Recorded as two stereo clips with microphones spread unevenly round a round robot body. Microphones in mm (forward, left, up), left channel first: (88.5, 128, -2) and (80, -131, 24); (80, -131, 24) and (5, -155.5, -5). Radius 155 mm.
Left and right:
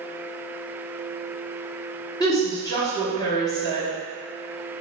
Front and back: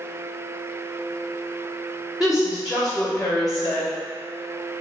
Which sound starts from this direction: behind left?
A woman speaking, at 2.2 s.